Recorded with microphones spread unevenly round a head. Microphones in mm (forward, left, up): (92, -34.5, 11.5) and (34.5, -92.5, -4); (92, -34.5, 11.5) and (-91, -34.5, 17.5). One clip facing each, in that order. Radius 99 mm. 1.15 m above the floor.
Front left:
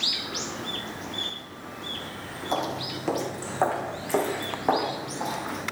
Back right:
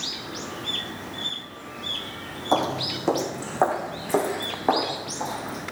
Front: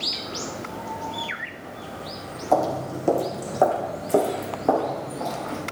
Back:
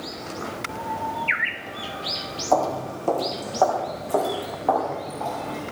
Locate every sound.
2.5 s footsteps: 80° right, 2 m; by 5.6 s 50° right, 6.5 m